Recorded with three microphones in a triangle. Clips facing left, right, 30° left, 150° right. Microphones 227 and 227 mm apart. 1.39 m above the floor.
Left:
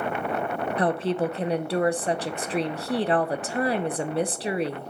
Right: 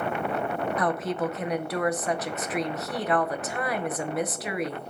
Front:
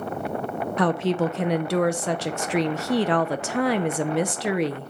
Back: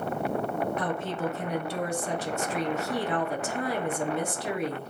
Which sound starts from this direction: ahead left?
A woman speaking, at 0.8 s.